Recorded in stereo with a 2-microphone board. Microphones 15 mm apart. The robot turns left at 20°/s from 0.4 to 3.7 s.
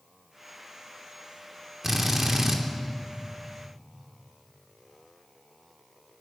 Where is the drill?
10° right (ahead or behind), 2.5 m; by 2.6 s 25° right (ahead or behind), 2.5 m.